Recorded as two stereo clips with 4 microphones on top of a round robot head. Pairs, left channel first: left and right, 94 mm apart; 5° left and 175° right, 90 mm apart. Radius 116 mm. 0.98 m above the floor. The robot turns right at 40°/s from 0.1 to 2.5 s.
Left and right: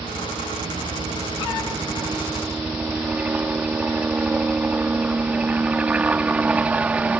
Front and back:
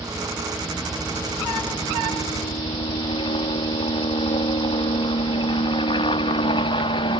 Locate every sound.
0.0 s a helicopter: 110° right; by 7.2 s 15° right